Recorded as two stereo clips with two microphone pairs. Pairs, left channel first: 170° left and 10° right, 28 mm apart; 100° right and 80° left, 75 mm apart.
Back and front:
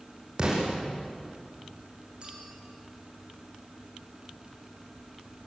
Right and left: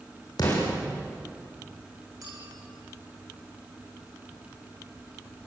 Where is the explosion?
70° right, 8.5 m.